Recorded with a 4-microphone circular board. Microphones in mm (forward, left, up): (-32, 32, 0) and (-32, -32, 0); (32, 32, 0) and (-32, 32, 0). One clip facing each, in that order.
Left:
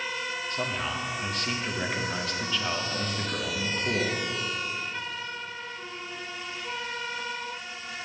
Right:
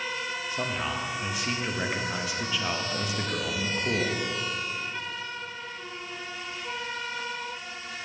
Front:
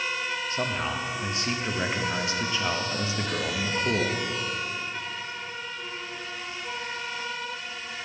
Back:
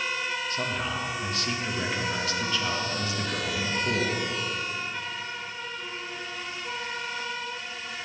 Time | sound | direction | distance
0.5 | a man speaking | 25° right | 0.7 m